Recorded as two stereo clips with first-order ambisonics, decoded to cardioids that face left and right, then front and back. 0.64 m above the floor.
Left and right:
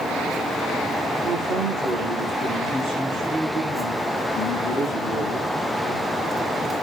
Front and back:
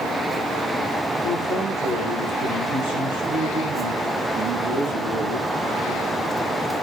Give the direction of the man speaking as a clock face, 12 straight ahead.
5 o'clock.